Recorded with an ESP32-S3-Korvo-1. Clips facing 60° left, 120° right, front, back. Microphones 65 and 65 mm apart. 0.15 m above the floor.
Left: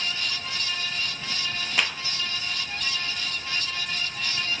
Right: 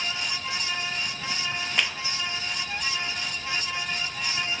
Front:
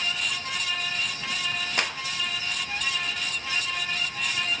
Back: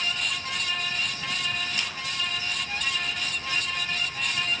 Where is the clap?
25° right, 2 m.